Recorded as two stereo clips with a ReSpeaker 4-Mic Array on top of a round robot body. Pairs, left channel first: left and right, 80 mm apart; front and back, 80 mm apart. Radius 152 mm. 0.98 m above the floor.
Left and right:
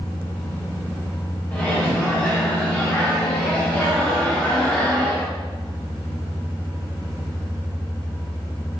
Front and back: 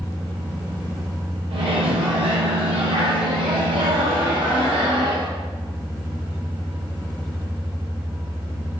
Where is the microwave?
165° left, 0.7 m.